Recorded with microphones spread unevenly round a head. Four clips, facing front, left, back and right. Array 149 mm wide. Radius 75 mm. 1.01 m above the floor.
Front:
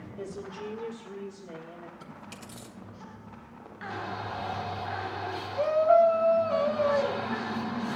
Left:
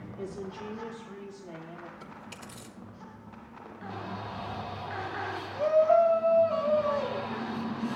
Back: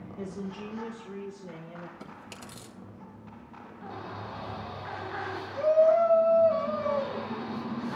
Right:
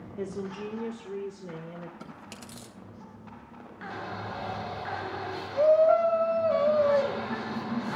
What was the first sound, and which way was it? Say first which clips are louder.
A woman speaking: right 4 dB, even; 90° right.